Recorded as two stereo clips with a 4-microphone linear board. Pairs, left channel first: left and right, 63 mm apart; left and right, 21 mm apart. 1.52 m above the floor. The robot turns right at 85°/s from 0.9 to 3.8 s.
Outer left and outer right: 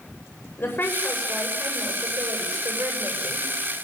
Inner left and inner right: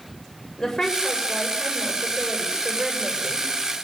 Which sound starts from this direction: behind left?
A woman speaking, at 0.6 s.